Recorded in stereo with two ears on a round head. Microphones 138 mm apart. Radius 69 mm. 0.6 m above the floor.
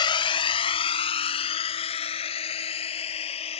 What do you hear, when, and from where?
0.0 s a drone: 35° left (ahead or behind); by 3.6 s 40° left (ahead or behind)